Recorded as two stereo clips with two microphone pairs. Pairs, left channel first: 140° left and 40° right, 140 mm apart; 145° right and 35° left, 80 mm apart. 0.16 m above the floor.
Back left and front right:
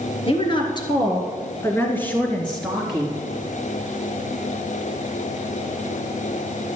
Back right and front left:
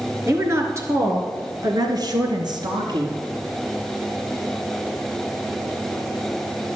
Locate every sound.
0.3 s a woman speaking: 95° left, 2.5 m; by 3.2 s 45° left, 2 m